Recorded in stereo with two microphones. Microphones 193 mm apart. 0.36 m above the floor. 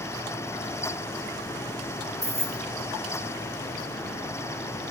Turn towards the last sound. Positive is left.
turn(degrees=30)  # may be behind; listen again after turning